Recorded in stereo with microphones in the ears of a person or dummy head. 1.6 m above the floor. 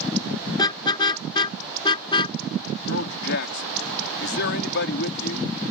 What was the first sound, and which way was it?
A car horn, 25° left (ahead or behind).